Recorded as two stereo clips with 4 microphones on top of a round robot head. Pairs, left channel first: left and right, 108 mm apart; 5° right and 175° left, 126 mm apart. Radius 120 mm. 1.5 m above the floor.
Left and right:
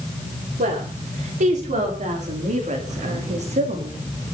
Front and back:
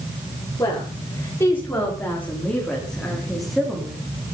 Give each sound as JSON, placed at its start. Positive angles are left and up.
{"t": 0.6, "sound": "a woman speaking", "azimuth_deg": -75, "distance_m": 5.5}